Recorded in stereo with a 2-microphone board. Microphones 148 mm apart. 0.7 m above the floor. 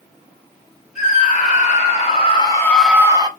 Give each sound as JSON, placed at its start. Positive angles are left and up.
{"t": 0.9, "sound": "a scream", "side_deg": 50, "distance_m": 2.0}